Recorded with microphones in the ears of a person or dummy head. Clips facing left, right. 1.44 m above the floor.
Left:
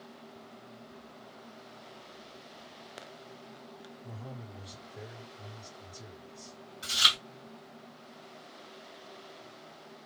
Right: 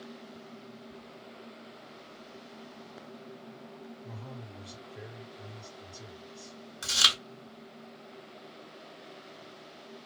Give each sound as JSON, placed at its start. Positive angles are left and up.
{"t": 4.0, "sound": "a man speaking", "side_deg": 0, "distance_m": 1.1}
{"t": 6.8, "sound": "chewing", "side_deg": -65, "distance_m": 0.8}